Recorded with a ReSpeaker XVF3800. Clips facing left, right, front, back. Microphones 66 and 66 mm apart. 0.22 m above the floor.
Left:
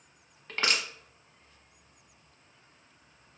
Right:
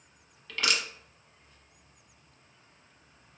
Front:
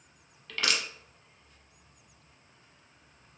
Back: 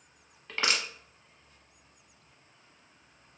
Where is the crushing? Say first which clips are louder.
Even, back 1 dB; 130° left, 0.8 m.